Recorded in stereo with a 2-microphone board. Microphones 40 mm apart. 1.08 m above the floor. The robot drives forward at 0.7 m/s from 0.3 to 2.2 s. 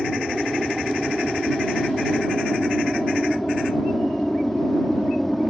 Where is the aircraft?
Centre (ahead or behind); by 5.5 s 5° left (ahead or behind).